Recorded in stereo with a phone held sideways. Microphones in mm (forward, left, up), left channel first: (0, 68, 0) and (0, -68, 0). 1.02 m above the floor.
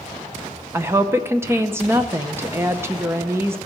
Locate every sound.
0.7 s a woman speaking: 15° right (ahead or behind), 0.7 m